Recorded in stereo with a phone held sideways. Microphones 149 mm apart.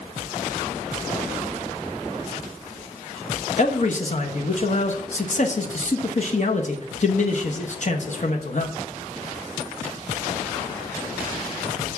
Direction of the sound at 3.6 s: 55° left (ahead or behind).